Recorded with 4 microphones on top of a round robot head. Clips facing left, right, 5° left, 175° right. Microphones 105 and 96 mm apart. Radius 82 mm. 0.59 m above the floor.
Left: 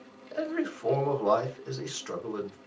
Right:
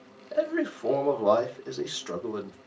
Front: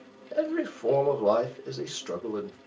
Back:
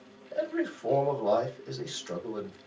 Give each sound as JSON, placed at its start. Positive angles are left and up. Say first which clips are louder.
{"t": 0.3, "sound": "a man speaking", "louder": "right 4 dB, front 3 dB", "azimuth_deg": -20, "distance_m": 2.0}